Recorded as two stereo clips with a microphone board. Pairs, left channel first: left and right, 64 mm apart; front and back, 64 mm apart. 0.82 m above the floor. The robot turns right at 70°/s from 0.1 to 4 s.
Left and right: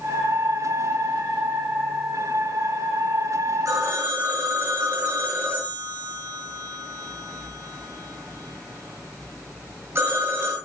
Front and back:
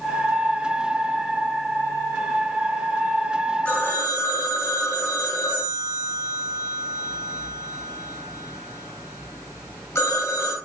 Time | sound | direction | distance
3.6 | a phone ringing | 60° right | 8 m